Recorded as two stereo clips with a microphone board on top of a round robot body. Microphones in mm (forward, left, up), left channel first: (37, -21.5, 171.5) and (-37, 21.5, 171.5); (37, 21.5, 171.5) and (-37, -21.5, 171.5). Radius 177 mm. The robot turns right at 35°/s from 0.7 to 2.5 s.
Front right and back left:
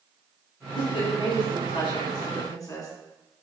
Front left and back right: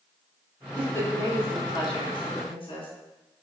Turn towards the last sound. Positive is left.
turn(degrees=20)